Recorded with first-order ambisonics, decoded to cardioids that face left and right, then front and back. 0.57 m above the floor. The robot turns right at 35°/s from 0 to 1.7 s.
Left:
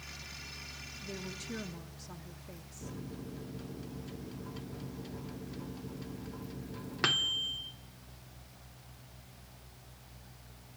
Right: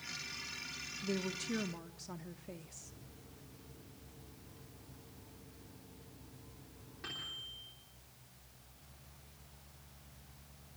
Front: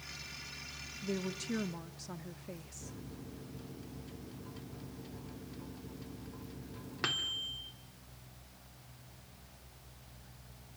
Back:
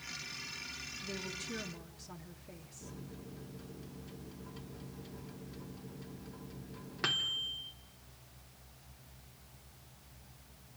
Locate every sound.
1.0 s a woman speaking: 45° right, 0.7 m; by 2.9 s 20° right, 0.7 m
2.8 s a microwave: 85° left, 0.8 m